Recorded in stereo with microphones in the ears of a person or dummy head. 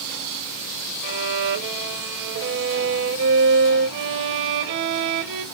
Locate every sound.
1.0 s a violin: 60° right (ahead or behind), 0.7 m